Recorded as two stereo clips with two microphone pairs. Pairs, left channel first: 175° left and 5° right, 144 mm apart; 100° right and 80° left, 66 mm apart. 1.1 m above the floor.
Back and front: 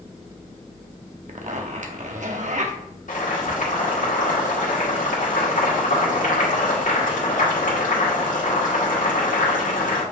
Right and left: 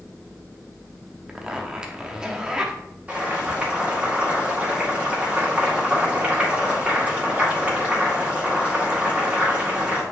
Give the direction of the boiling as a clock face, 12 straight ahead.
7 o'clock.